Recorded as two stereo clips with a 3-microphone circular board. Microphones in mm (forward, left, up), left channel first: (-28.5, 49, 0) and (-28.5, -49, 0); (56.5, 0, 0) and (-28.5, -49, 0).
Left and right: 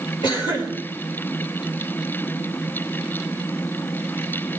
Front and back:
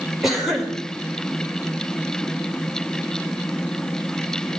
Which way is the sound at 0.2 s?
120° left.